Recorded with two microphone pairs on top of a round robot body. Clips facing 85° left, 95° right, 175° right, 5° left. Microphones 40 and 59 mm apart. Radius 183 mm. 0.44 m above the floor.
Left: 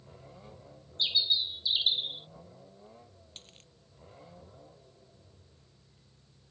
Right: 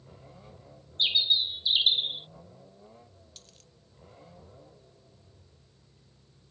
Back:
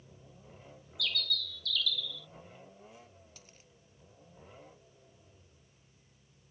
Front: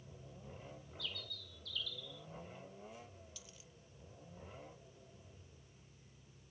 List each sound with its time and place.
1.0 s a bird: 150° right
3.4 s a dropped coin: 140° left